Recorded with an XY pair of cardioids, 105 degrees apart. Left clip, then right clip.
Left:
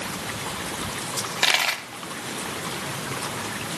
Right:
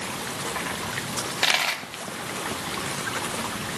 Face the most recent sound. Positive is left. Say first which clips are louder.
# left 2 dB
turn(degrees=20)